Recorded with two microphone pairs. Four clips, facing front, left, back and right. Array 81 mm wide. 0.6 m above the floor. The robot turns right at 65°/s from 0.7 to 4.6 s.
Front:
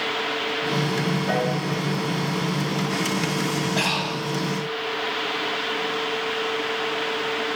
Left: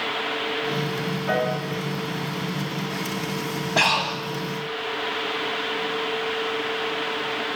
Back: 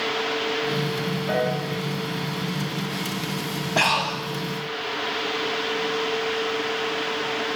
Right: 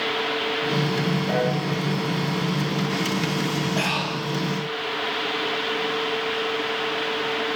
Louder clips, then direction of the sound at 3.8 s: Left 3 dB, back 2 dB; 130° left.